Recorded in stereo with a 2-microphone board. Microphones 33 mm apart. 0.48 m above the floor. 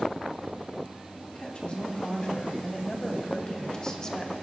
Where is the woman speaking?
35° left (ahead or behind), 3 m; by 4.3 s 20° left (ahead or behind), 1.5 m.